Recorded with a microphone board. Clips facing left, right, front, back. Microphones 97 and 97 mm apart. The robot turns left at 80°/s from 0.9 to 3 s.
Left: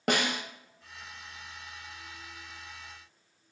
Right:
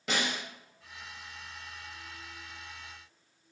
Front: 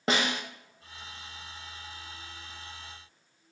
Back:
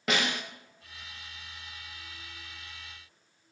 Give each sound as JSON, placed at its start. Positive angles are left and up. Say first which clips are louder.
{"t": 0.1, "sound": "a snare drum", "louder": "left 4 dB, front 2 dB", "azimuth_deg": 60, "distance_m": 1.1}